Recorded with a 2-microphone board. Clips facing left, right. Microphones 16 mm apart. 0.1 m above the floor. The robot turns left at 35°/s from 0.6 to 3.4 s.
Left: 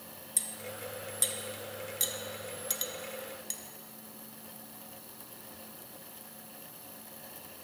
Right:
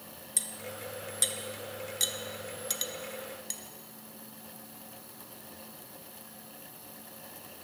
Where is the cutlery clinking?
15° right (ahead or behind), 0.7 m; by 3.6 s 10° right (ahead or behind), 0.7 m.